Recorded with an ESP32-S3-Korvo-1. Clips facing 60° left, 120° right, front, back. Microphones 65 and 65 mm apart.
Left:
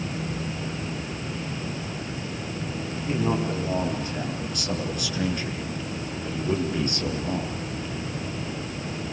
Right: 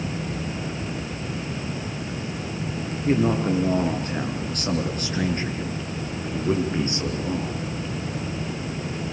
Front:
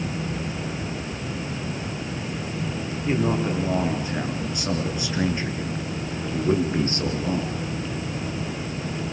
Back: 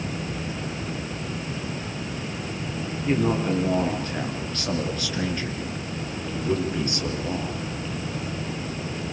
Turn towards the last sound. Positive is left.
turn(degrees=-45)